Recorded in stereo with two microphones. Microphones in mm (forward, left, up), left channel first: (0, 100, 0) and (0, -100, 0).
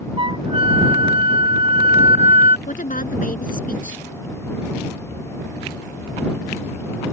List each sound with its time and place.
0.2 s a flute: 30° right (ahead or behind)
2.7 s a woman speaking: 45° left (ahead or behind)